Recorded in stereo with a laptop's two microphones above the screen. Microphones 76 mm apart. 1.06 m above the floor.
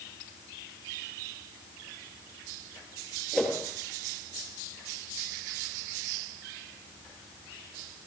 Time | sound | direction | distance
3.3 | a whoosh | 5° left (ahead or behind) | 8 m